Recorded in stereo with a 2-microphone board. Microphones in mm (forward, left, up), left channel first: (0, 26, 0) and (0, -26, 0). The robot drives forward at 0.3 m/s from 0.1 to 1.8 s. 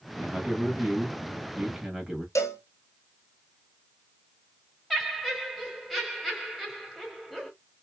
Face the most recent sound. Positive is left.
turn(degrees=0)  # may be behind; listen again after turning